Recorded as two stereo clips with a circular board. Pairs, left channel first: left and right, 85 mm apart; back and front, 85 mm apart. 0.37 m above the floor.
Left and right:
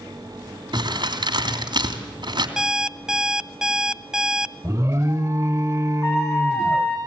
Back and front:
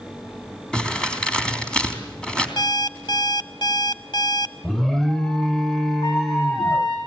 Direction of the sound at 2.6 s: 170° right.